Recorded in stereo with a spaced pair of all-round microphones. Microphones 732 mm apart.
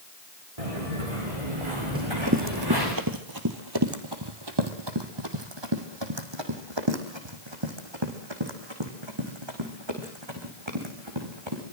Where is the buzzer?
I don't hear a buzzer.